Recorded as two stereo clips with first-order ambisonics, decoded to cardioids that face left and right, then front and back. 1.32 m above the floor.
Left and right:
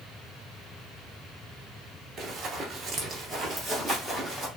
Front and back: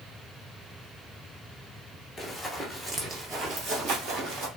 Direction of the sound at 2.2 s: 75° right.